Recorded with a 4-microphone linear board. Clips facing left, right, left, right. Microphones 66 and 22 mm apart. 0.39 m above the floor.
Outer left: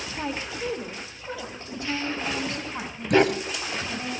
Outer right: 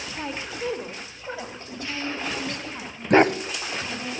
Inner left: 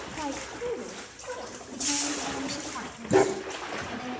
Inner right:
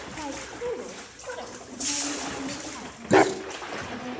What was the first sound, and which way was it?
A woman speaking, 10° left (ahead or behind).